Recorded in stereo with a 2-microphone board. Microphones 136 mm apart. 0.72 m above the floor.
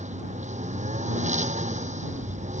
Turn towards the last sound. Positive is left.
turn(degrees=-60)  # may be behind; listen again after turning